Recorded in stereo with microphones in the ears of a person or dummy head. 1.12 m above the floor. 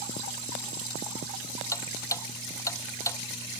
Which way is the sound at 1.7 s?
20° left (ahead or behind).